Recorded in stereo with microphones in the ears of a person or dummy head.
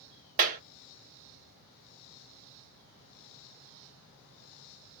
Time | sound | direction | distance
0.4 | a clap | 45° right (ahead or behind) | 0.9 m